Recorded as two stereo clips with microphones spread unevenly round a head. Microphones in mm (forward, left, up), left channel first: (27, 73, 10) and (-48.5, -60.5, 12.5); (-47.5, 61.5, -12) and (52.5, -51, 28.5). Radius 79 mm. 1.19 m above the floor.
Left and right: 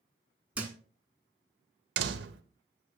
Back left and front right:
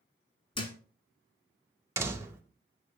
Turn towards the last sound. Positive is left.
turn(degrees=-115)